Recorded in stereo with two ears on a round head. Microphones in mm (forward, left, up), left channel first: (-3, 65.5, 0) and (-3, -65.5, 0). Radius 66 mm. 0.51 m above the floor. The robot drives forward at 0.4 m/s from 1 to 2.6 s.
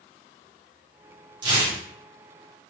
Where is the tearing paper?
30° right (ahead or behind), 1.1 m.